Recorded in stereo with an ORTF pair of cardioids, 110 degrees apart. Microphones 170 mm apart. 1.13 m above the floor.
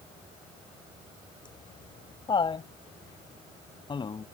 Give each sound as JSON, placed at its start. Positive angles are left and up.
{"t": 1.4, "sound": "laughter", "azimuth_deg": 30}